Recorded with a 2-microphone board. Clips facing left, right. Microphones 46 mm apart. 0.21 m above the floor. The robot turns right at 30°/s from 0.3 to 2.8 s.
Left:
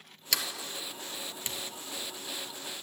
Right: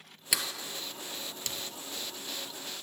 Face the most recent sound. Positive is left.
turn(degrees=65)  # may be behind; listen again after turning